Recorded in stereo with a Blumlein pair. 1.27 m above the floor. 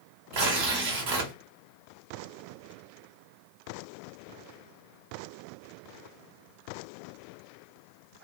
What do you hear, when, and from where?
0.3 s tearing paper: 50° right, 1.0 m